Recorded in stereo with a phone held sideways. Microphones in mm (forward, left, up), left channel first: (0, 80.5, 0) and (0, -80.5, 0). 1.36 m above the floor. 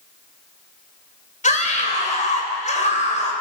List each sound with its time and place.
1.4 s a scream: 50° left (ahead or behind), 6.5 m